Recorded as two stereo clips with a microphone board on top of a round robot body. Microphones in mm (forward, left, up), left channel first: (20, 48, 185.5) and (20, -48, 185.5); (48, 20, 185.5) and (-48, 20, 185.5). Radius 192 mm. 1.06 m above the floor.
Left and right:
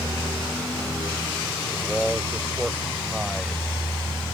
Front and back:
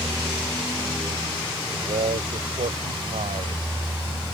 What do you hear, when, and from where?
1.7 s a man speaking: straight behind